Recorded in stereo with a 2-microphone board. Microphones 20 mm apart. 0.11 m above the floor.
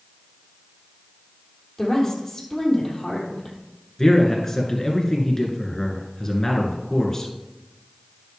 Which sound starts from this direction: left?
A woman speaking, at 1.8 s.